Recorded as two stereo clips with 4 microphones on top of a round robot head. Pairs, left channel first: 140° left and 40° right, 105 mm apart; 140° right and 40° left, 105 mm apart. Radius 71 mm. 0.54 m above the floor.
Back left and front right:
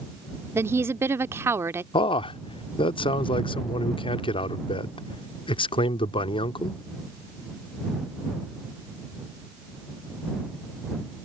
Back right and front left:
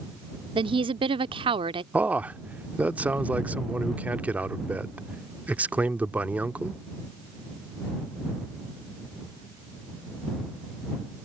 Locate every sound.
0.6 s a woman speaking: 20° left
1.9 s a man speaking: 115° left